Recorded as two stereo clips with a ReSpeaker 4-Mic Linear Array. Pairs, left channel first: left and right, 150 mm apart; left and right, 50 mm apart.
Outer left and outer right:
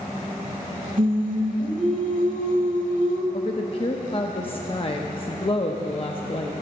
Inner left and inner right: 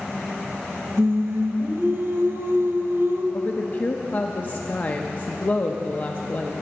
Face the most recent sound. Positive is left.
turn(degrees=40)  # may be behind; listen again after turning